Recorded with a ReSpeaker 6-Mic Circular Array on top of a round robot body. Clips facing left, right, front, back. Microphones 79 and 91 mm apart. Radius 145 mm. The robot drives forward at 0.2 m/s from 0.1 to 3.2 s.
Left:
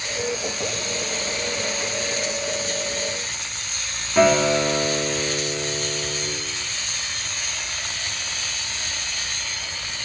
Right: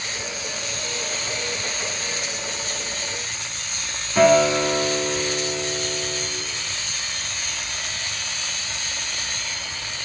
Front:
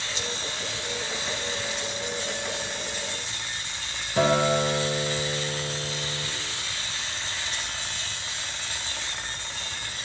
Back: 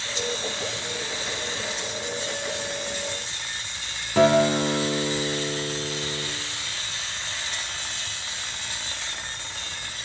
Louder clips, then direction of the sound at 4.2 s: Right 1 dB, back 4 dB; 175° left.